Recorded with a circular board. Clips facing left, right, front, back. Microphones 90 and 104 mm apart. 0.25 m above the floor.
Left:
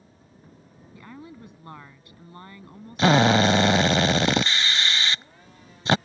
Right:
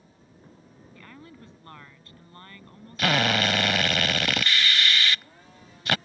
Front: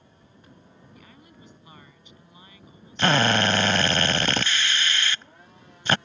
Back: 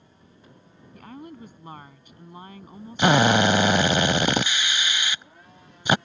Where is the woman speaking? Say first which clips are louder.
Left 5 dB, back 14 dB; 160° left.